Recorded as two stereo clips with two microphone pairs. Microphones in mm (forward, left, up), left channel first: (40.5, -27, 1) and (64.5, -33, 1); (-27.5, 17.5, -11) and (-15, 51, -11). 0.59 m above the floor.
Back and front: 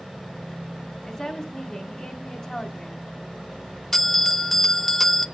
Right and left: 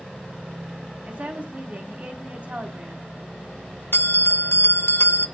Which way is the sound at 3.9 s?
110° right.